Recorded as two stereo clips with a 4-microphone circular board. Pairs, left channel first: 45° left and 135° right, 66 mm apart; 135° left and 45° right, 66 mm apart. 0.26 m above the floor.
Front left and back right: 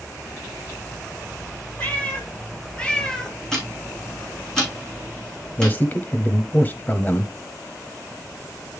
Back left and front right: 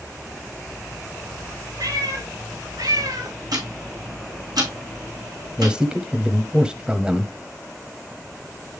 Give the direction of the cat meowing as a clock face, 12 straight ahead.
1 o'clock.